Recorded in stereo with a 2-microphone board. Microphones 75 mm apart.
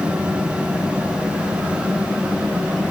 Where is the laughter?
I don't hear laughter.